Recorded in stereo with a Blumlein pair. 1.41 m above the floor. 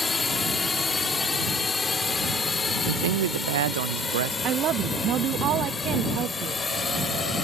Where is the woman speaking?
30° right.